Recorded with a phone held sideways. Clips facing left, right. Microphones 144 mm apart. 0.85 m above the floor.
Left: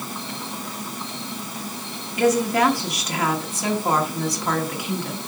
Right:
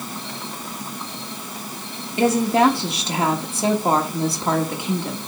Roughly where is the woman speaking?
Right.